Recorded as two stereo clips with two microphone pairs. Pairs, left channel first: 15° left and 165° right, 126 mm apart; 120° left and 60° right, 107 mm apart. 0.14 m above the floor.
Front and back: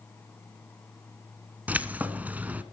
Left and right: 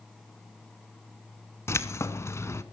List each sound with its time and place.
1.7 s keys jangling: 135° left, 0.8 m